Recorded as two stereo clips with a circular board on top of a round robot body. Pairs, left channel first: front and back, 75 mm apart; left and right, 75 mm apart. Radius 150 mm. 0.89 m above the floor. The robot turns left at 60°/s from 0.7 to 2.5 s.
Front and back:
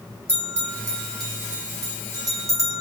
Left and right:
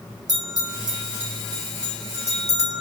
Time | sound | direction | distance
0.3 | a bell | 120° right | 2 m